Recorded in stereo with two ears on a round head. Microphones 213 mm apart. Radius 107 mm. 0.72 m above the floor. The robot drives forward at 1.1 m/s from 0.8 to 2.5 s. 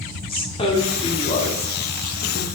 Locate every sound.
0.3 s a woman speaking: 25° left (ahead or behind), 1.6 m; by 2.5 s 45° left (ahead or behind), 1.0 m